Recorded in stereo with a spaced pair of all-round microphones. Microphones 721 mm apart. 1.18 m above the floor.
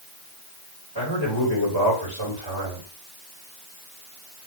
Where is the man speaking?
30° left (ahead or behind), 4 m.